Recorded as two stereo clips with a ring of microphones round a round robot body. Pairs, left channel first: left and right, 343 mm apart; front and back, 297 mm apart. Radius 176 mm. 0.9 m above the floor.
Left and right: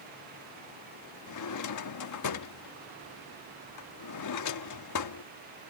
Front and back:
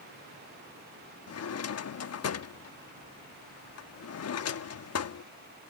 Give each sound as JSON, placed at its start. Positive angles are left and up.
{"t": 1.3, "sound": "a drawer", "azimuth_deg": 45}